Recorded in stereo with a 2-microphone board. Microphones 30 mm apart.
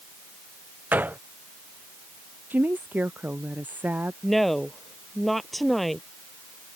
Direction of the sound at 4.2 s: Centre (ahead or behind).